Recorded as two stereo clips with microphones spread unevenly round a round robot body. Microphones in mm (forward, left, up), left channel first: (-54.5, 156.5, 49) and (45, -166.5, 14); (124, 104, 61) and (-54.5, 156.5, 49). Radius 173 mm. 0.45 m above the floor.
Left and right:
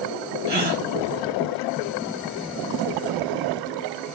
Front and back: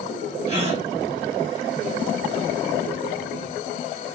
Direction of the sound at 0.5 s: 140° right.